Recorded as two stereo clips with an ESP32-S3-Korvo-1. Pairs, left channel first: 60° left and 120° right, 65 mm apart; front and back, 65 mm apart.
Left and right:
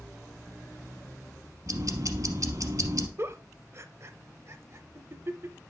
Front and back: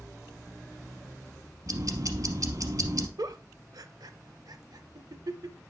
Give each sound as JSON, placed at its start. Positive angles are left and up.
{"t": 1.7, "sound": "ticking", "azimuth_deg": -150, "distance_m": 0.8}
{"t": 3.2, "sound": "a giggle", "azimuth_deg": -165, "distance_m": 0.6}